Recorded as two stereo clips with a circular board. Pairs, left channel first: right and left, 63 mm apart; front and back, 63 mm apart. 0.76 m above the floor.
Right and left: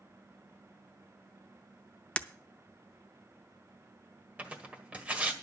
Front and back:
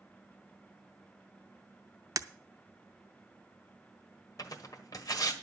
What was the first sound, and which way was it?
Breaking glass, 160° right.